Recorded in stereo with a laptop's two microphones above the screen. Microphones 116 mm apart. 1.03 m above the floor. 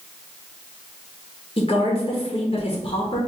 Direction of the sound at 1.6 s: 50° left (ahead or behind).